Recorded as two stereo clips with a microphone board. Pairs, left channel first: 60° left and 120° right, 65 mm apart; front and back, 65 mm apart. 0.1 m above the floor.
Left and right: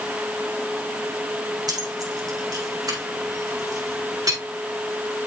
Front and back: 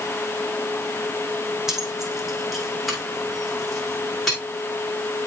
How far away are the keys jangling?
About 3.5 m.